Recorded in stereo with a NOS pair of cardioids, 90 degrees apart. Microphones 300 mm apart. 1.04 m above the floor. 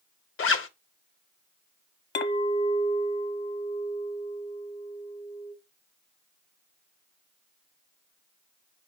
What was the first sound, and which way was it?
A zipper, 45° left.